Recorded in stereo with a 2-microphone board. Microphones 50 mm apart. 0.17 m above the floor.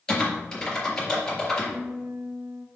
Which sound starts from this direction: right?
A guitar, at 1.7 s.